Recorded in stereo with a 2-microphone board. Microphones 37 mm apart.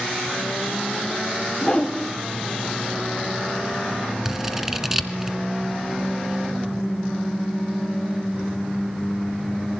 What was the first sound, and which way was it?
A whoosh, 5° left (ahead or behind).